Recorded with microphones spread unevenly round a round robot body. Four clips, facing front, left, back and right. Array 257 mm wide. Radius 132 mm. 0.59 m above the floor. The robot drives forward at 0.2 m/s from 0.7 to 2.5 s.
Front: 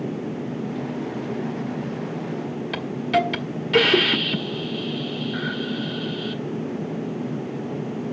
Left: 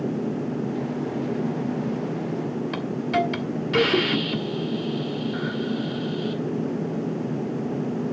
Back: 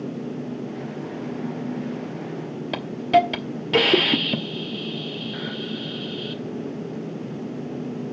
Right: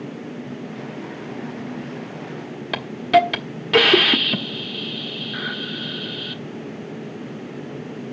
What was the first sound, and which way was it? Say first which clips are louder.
A hiss: right 9 dB, back 4 dB; 135° right.